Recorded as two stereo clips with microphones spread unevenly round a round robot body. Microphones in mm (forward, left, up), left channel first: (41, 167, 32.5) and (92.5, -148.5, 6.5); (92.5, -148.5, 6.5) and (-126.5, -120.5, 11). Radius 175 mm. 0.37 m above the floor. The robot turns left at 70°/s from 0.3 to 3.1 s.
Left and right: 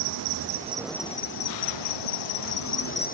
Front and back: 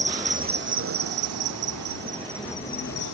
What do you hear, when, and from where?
0.0 s an insect: 130° right; by 3.1 s 35° left